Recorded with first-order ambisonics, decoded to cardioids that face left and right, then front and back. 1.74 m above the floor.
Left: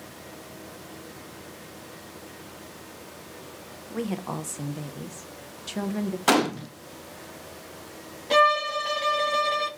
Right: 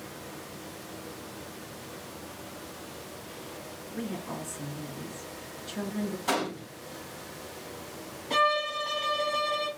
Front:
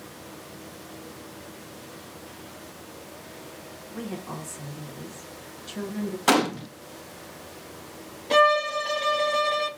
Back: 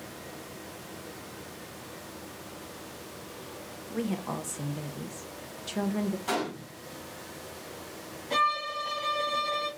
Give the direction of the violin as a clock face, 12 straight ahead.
10 o'clock.